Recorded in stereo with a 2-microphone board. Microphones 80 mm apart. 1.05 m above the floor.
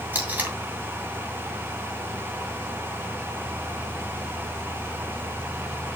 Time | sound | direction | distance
0.1 | tape being pulled | 20° right (ahead or behind) | 2.5 m